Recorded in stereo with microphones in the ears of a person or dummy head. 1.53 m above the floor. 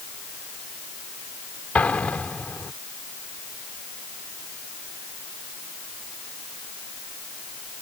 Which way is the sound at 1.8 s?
5° left (ahead or behind).